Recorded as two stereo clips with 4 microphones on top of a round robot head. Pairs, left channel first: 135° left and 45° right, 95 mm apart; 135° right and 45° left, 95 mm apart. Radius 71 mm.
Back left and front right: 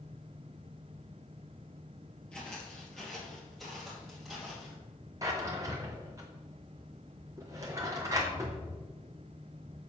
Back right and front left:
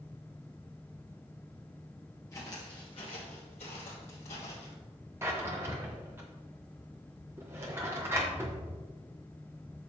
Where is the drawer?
10° right, 0.7 m.